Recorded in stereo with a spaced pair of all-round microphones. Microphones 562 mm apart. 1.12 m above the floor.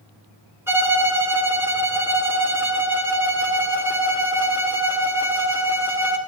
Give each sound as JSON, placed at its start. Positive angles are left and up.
{"t": 0.7, "sound": "a violin", "side_deg": -5, "distance_m": 3.5}